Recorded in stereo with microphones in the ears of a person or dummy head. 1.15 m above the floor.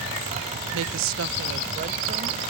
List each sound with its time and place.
0.7 s a woman speaking: 65° right (ahead or behind); by 2.5 s 35° right (ahead or behind)